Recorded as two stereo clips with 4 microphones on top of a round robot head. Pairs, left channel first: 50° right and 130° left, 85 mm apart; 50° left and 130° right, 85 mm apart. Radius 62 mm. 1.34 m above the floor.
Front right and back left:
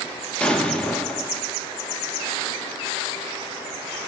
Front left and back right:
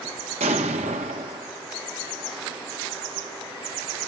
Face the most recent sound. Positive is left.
turn(degrees=-130)